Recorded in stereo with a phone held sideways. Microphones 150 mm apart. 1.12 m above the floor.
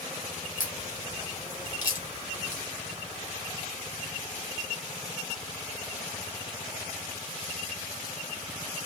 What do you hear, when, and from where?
0.6 s a crack: 65° left (ahead or behind), 1.5 m